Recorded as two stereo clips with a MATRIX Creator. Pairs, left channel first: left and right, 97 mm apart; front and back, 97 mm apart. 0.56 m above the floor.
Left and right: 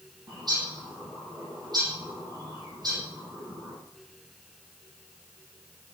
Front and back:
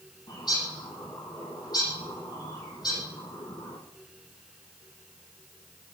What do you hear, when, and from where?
0.3 s a bird: 45° right, 7.5 m